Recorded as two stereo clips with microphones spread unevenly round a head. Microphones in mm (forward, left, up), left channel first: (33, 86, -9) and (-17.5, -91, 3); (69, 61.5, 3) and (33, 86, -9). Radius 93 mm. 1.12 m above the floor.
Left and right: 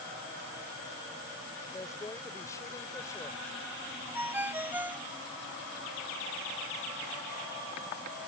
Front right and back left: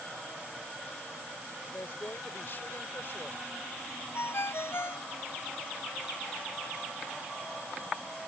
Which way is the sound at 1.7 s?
Straight ahead.